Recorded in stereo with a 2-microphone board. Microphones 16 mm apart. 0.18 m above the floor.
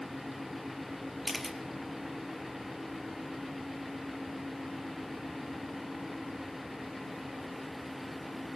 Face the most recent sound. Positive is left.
turn(degrees=0)  # may be behind; listen again after turning